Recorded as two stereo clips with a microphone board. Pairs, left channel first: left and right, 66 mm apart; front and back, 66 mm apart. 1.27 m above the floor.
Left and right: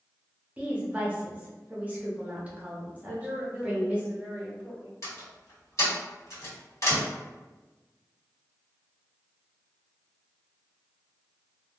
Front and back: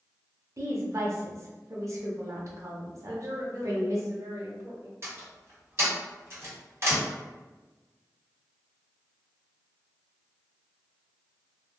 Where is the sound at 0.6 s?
150° right, 0.8 m.